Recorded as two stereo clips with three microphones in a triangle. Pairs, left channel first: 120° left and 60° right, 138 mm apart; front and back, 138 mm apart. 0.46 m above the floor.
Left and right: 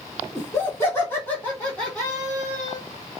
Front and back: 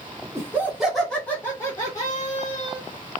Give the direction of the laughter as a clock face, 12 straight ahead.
7 o'clock.